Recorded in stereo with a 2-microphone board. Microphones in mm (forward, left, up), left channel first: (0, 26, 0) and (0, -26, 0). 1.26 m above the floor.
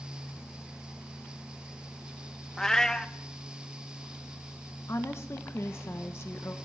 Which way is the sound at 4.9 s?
50° left (ahead or behind).